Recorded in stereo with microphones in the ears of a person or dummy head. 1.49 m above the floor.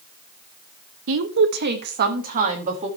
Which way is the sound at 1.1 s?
70° right (ahead or behind).